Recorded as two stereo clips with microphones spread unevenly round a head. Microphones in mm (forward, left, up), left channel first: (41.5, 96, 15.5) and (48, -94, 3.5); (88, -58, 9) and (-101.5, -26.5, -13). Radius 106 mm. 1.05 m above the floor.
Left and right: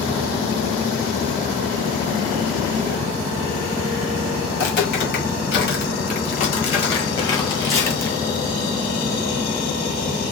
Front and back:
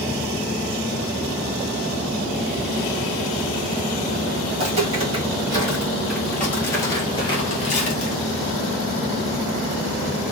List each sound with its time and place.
4.5 s footsteps: 115° left, 1.7 m; by 8.2 s 20° left, 1.6 m